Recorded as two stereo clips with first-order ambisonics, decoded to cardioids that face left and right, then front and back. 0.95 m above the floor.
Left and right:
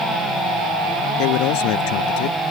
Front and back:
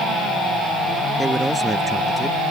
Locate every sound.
1.2 s a man speaking: 95° left